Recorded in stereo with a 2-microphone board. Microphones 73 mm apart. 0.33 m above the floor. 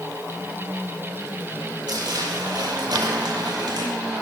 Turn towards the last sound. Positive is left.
turn(degrees=-70)  # may be behind; listen again after turning